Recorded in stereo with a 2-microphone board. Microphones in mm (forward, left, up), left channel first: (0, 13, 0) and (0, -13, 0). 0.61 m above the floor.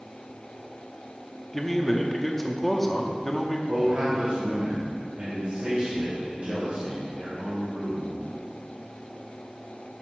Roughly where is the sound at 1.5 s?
Centre.